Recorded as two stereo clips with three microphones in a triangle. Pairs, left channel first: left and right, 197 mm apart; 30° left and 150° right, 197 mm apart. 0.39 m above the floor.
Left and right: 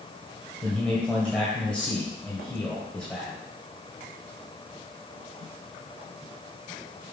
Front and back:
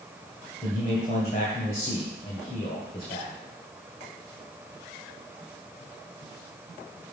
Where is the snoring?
I don't hear snoring.